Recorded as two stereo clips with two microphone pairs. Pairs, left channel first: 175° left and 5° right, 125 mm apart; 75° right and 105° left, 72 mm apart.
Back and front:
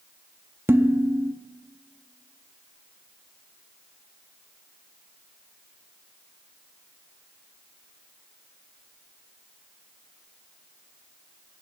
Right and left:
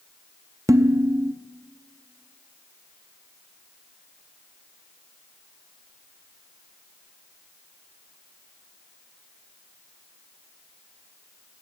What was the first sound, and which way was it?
Dishes clattering, 65° left.